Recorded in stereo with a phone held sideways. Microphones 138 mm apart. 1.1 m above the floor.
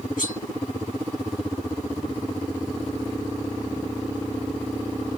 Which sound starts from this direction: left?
Cutlery clinking, at 0.2 s.